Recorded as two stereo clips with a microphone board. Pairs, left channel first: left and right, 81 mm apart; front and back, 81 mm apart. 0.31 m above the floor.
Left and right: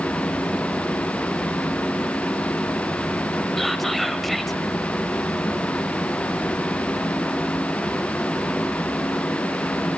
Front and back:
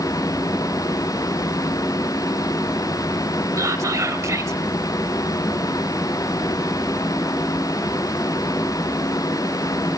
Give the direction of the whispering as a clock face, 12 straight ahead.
6 o'clock.